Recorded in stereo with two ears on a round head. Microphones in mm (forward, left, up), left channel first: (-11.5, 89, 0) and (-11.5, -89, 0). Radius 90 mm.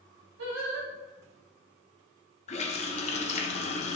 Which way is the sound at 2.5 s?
35° left (ahead or behind).